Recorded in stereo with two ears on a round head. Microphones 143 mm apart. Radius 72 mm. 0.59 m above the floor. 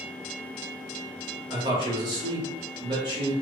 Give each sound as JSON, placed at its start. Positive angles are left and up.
{"t": 1.5, "sound": "a man speaking", "side_deg": -30, "distance_m": 0.9}